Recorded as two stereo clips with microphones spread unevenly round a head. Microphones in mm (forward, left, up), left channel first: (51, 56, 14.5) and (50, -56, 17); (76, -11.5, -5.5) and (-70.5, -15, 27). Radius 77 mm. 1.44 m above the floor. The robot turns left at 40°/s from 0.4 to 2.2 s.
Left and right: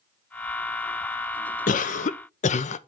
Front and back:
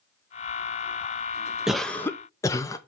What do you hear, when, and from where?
1.7 s a cough: 95° left, 0.6 m; by 2.8 s 70° left, 0.6 m